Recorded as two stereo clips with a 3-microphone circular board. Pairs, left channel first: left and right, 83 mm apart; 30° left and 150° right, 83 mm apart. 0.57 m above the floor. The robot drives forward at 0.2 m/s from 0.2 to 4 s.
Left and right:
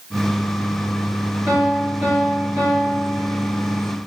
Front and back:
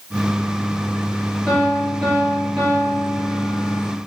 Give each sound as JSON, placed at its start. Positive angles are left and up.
{"t": 1.5, "sound": "a piano", "azimuth_deg": -60, "distance_m": 1.3}